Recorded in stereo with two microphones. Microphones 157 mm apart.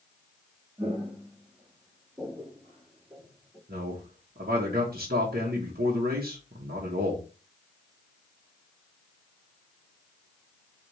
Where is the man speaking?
75° right (ahead or behind), 1.2 m.